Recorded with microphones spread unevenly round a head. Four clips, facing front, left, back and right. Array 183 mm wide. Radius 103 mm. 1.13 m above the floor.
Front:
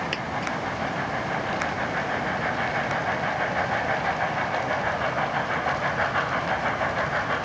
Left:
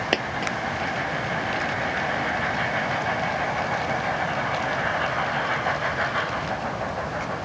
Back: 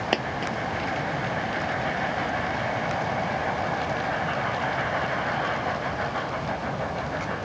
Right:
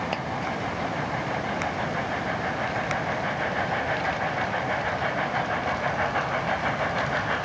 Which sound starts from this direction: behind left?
A dropped coin, at 0.1 s.